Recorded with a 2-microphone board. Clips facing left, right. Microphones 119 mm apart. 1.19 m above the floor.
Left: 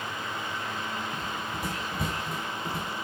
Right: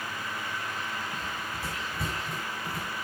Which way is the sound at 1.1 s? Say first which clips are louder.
Left 2 dB; 15° left (ahead or behind).